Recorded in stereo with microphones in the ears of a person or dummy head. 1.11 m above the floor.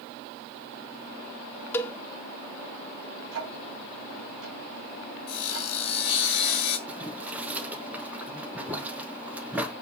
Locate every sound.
1.7 s a cowbell: 15° left (ahead or behind), 0.5 m
3.3 s ticking: 80° right, 2.5 m
5.3 s sawing: 45° left (ahead or behind), 1.4 m
6.9 s boiling: 10° right (ahead or behind), 0.9 m